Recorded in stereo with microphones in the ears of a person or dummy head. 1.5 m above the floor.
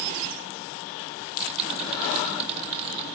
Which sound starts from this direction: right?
Typing on a keyboard, at 1.2 s.